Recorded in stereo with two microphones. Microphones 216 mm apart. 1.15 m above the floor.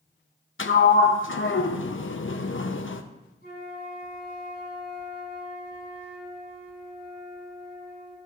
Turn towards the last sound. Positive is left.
turn(degrees=-45)  # may be behind; listen again after turning